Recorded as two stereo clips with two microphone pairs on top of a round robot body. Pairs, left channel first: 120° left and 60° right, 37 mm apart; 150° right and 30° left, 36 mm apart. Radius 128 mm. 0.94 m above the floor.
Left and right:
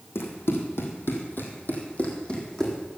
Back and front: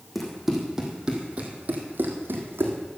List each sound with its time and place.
0.1 s running footsteps: 130° left, 3 m; by 2.8 s 40° left, 3 m